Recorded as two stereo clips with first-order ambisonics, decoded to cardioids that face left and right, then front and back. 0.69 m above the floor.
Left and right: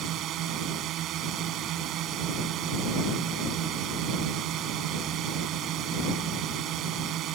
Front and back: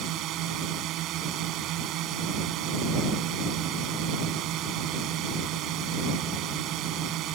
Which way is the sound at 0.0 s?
140° right.